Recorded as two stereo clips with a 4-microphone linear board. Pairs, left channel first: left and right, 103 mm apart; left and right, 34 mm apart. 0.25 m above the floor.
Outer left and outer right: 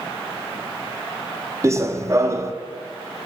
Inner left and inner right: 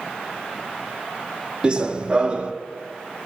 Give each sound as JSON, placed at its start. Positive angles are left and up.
{"t": 1.6, "sound": "running footsteps", "side_deg": -30, "distance_m": 0.5}